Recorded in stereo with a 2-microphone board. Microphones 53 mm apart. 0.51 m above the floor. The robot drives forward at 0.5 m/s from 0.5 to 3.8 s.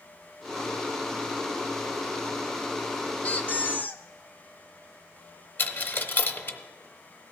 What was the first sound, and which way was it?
A squeak, 30° left (ahead or behind).